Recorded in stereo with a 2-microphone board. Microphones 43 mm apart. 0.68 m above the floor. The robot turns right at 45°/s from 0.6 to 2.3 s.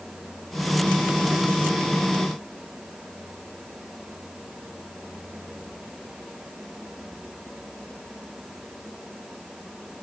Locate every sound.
Only background noise.